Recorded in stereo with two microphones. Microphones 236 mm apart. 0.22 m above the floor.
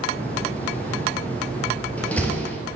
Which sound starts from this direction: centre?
A door slam, at 0.1 s.